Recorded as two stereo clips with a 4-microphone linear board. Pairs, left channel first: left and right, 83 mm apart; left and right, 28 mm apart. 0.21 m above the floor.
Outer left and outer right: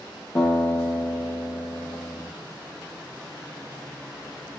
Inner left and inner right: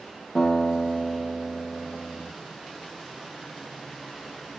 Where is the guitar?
40° left (ahead or behind), 7.5 m.